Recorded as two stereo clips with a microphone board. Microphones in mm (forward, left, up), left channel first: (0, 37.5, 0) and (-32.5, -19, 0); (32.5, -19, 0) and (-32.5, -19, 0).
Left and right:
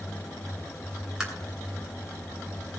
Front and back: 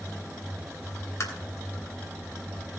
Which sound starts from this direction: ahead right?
Tapping, at 1.2 s.